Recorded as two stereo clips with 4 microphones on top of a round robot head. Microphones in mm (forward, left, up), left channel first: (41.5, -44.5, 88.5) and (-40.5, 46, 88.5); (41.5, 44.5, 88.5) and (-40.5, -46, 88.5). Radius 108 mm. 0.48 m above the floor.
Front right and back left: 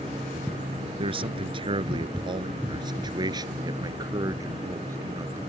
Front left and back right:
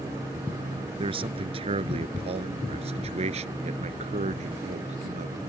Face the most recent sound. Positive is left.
turn(degrees=-160)